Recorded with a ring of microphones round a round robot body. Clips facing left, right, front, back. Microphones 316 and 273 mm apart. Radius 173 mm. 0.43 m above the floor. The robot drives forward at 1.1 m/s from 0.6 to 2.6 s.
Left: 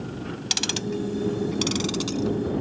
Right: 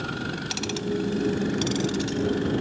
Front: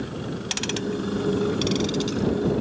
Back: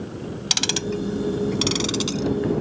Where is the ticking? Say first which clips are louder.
Right 2 dB, back 1 dB; 150° left; by 2.4 s 165° left.